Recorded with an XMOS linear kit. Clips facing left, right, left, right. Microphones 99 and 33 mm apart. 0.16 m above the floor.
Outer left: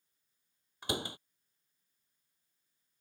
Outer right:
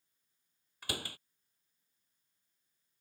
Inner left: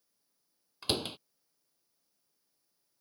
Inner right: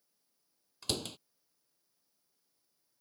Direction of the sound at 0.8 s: 20° left (ahead or behind).